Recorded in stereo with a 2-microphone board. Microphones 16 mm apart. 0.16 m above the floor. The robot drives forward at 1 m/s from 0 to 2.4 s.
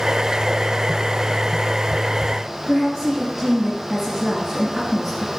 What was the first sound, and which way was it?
A woman speaking, 10° left (ahead or behind).